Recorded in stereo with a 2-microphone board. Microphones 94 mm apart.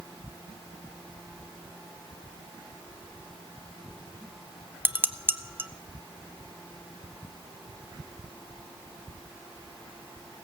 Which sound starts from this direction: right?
Dishes clattering, at 4.8 s.